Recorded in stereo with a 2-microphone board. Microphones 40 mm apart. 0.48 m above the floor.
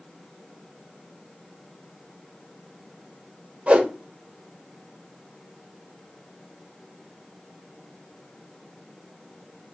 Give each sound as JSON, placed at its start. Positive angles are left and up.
{"t": 3.7, "sound": "a whoosh", "side_deg": -30, "distance_m": 0.8}